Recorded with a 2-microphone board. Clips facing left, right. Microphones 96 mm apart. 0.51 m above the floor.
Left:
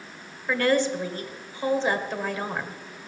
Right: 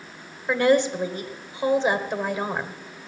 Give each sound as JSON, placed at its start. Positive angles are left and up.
{"t": 0.5, "sound": "a woman speaking", "side_deg": -20, "distance_m": 1.7}